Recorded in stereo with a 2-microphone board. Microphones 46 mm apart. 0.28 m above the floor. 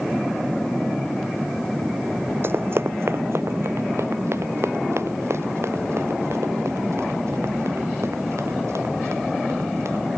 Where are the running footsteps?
60° right (ahead or behind); by 10.0 s 85° right.